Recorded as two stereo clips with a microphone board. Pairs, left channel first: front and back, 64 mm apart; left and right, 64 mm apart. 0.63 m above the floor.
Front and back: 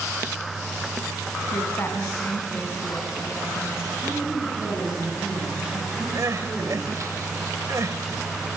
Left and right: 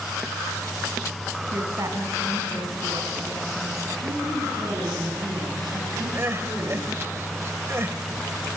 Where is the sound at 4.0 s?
100° right, 8 m.